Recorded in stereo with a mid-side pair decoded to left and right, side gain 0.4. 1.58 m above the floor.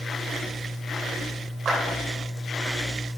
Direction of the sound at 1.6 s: 60° right.